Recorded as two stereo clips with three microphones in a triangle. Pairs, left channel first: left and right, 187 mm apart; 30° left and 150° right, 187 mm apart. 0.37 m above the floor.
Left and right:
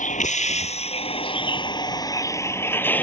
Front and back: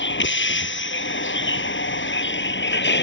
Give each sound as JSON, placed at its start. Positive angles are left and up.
{"t": 0.0, "sound": "a vehicle", "azimuth_deg": 40}